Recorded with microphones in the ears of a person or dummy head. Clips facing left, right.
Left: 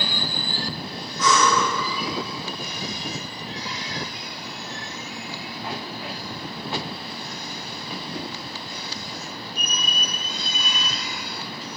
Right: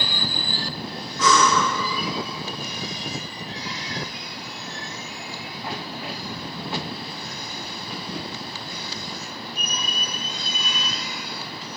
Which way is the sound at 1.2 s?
60° right (ahead or behind).